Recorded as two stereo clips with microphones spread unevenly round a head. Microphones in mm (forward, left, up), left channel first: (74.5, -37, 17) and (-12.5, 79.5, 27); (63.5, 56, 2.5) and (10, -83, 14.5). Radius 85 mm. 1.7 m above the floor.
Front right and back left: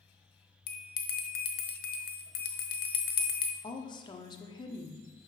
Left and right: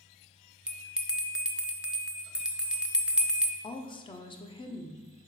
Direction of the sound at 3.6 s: 10° left.